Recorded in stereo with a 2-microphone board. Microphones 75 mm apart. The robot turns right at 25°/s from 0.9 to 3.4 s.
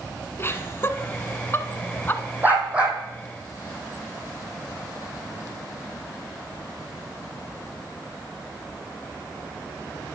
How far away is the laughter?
About 1.2 m.